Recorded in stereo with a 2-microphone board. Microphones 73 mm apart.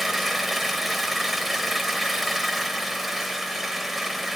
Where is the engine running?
5° right (ahead or behind), 1.4 m.